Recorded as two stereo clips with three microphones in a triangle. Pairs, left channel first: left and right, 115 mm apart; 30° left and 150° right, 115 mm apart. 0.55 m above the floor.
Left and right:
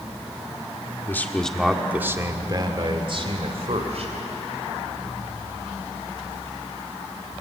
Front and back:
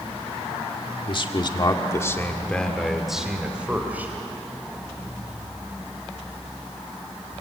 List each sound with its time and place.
1.1 s a man speaking: 25° left, 1.7 m; by 4.1 s 75° right, 3 m